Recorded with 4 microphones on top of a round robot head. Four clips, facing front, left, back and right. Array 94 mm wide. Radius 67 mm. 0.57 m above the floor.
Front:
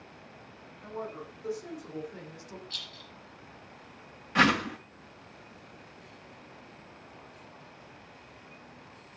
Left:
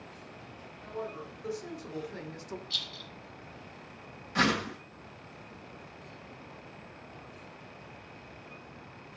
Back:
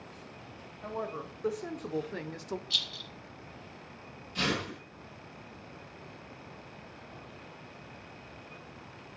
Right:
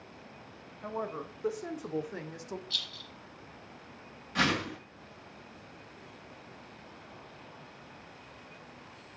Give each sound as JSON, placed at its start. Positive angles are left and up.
{"t": 0.8, "sound": "a woman speaking", "azimuth_deg": -130, "distance_m": 3.5}
{"t": 2.7, "sound": "a rattle", "azimuth_deg": 175, "distance_m": 5.0}
{"t": 4.3, "sound": "a whoosh", "azimuth_deg": 15, "distance_m": 3.0}